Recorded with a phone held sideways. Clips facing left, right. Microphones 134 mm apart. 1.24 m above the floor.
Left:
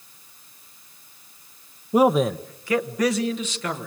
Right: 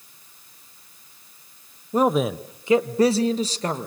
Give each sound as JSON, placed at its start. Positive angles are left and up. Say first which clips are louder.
{"t": 1.9, "sound": "a man speaking", "louder": "left 2 dB", "side_deg": 15, "distance_m": 0.7}